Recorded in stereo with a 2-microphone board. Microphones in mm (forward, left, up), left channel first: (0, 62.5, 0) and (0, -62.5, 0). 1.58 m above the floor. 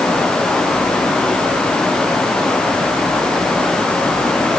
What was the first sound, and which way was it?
Only background noise.